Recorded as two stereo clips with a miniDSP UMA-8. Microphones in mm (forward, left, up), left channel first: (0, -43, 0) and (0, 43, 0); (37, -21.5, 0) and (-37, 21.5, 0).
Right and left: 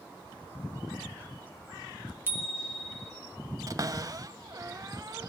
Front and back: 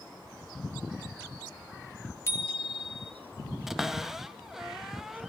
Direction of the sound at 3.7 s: 65° left.